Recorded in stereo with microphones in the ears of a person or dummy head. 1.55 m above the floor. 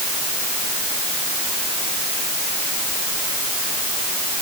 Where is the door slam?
I don't hear a door slam.